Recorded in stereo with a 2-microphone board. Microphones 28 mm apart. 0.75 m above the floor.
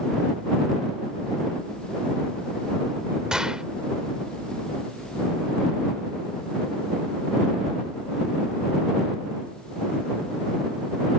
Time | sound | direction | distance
3.3 | a gunshot | 30° right (ahead or behind) | ?